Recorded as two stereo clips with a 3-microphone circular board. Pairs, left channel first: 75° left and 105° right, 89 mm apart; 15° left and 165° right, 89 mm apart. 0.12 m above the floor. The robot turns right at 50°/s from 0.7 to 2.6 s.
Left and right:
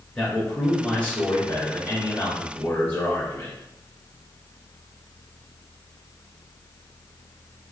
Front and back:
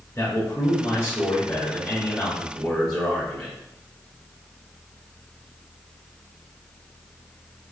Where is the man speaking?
5° left, 1.9 m; by 3.5 s 100° left, 1.9 m.